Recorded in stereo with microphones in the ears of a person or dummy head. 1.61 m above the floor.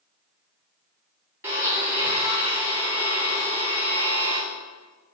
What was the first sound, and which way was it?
A blender, 10° right (ahead or behind).